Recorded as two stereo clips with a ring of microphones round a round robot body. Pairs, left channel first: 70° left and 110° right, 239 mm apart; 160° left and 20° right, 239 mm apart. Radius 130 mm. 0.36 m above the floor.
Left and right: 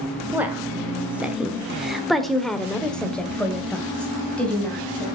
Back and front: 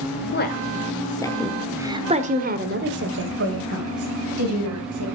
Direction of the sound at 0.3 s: 165° left.